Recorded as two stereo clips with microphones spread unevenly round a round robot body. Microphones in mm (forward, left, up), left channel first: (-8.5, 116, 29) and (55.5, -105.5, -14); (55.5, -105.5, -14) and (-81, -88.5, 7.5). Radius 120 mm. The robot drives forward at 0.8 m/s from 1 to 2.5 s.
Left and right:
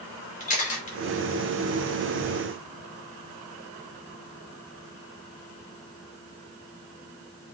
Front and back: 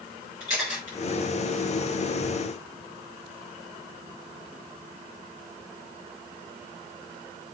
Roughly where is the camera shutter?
Ahead left.